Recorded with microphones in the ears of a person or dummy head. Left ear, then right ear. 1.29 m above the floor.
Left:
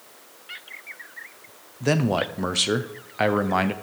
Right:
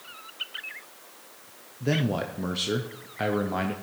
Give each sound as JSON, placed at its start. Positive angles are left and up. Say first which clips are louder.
{"t": 1.8, "sound": "a man speaking", "louder": "left 5 dB", "side_deg": 35, "distance_m": 0.5}